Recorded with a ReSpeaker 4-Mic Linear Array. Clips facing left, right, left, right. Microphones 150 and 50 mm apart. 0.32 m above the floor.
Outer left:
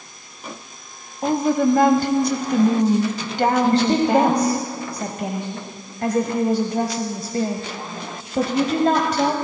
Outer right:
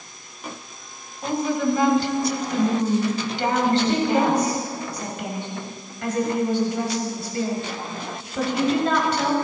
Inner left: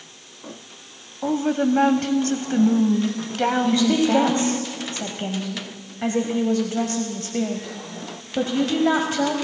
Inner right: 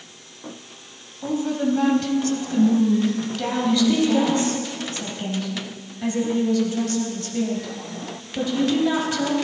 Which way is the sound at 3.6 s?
45° left (ahead or behind).